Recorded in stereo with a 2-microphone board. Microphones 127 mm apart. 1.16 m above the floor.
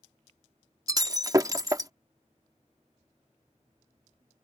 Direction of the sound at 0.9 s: 25° right (ahead or behind).